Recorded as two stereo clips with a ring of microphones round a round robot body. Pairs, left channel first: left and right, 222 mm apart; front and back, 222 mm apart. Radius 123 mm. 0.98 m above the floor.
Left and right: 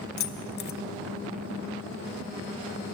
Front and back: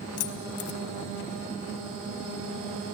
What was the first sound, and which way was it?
Keys jangling, 35° left.